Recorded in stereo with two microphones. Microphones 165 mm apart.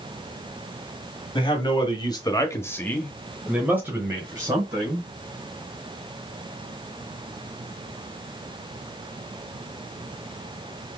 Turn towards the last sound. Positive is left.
turn(degrees=-25)  # may be behind; listen again after turning